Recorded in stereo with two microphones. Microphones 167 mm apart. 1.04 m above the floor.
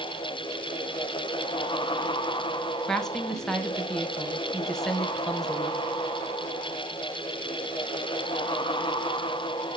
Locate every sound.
2.9 s a woman speaking: 5° left (ahead or behind), 0.9 m